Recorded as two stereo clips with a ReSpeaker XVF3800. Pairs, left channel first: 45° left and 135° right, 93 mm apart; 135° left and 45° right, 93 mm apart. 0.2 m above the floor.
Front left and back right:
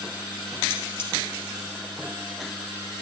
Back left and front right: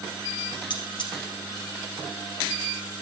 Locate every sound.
0.7 s cutlery clinking: 105° left, 3 m